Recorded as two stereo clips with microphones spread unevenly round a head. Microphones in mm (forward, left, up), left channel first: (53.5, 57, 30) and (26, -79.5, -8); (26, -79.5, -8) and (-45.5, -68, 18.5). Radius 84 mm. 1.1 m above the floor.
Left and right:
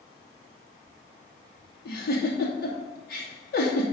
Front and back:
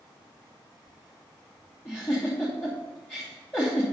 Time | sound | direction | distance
1.9 | a giggle | 70° left | 2.5 m